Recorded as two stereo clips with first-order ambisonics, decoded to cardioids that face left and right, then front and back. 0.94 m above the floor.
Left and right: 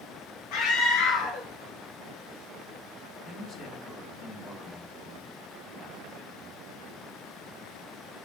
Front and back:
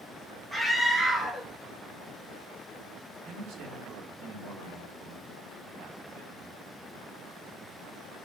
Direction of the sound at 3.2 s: 150° left.